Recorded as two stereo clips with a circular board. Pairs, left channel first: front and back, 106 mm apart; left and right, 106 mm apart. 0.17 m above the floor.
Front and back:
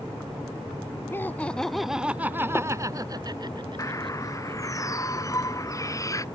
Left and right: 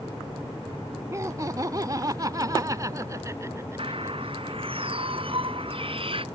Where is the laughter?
50° right; by 4.6 s 155° right.